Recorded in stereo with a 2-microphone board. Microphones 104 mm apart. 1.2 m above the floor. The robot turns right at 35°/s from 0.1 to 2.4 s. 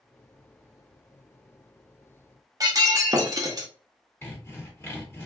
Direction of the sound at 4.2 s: 25° left (ahead or behind).